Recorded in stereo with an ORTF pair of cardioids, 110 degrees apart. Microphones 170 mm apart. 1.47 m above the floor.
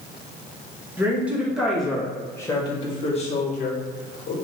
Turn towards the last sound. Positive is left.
turn(degrees=65)